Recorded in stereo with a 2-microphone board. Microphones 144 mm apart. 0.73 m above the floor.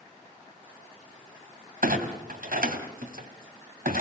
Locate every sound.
1.8 s a clunk: 85° right, 3 m